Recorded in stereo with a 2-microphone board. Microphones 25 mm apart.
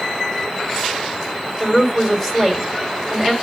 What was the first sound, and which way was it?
A woman speaking, 15° left (ahead or behind).